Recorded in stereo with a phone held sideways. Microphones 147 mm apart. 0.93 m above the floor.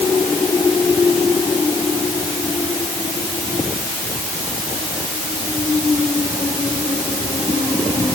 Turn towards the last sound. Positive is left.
No sound to turn to.